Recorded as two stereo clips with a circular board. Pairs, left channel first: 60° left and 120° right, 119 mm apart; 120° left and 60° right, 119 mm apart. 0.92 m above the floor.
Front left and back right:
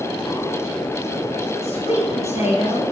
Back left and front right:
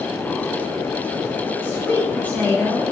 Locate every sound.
1.6 s a woman speaking: 50° left, 5 m; by 2.9 s 40° left, 4.5 m